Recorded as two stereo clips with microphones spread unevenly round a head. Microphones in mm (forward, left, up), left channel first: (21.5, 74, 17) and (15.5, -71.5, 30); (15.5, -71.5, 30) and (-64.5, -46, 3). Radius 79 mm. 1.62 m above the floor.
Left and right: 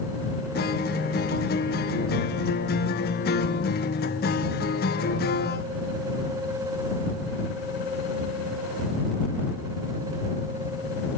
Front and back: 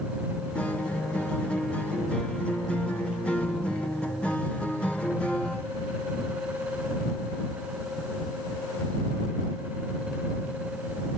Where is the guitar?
70° left.